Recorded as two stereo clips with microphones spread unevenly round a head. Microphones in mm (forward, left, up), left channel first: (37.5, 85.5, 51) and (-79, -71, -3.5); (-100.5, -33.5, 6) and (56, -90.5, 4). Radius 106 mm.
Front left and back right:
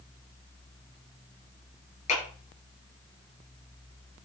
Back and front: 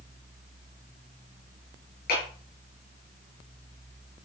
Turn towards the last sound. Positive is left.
turn(degrees=110)